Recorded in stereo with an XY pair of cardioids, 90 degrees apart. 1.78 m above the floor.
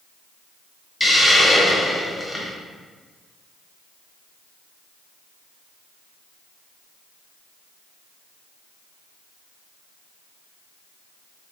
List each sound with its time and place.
1.0 s a hiss: 25° left, 1.3 m